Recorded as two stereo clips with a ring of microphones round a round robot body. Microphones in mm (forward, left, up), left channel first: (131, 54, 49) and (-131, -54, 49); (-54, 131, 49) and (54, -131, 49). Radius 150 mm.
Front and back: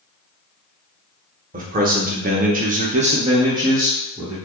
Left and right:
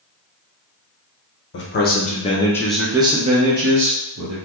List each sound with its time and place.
1.5 s a man speaking: 150° left, 1.0 m; by 4.4 s 75° right, 1.1 m